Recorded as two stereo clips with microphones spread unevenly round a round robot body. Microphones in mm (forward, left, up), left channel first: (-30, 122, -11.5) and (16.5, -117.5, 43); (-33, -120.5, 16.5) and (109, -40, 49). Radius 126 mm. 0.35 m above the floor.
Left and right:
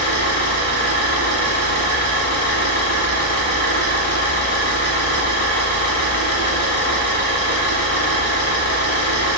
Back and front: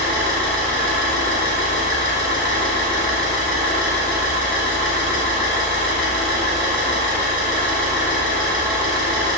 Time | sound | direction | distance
0.0 | an engine running | 150° left | 1.4 m